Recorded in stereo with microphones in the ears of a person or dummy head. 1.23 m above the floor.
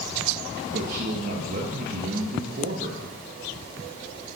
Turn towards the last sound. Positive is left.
turn(degrees=-50)  # may be behind; listen again after turning